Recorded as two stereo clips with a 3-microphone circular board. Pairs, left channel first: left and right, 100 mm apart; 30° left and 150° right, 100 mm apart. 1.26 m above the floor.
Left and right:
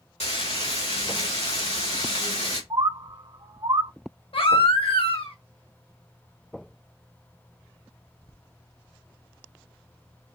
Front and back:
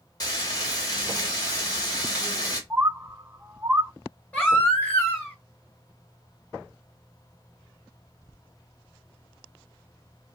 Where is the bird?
85° right, 0.6 m.